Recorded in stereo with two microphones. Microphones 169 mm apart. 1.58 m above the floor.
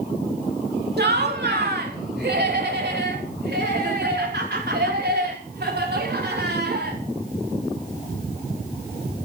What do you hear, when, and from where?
1.0 s laughter: 75° right (ahead or behind), 3 m; by 7.0 s 85° right, 6.5 m